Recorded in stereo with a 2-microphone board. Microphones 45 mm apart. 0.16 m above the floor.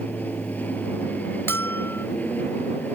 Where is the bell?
65° left (ahead or behind).